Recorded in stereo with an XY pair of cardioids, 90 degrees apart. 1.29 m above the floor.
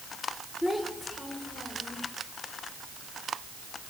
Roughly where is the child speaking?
Ahead.